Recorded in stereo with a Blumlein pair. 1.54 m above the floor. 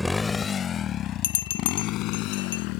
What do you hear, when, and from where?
0.0 s a motorcycle: straight ahead; by 2.8 s 40° left
1.2 s a bell: 60° left